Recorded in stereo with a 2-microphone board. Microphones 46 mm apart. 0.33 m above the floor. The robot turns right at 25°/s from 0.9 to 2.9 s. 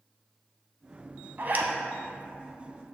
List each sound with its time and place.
1.4 s a zipper: 45° right (ahead or behind), 0.8 m; by 1.7 s 40° right (ahead or behind), 0.8 m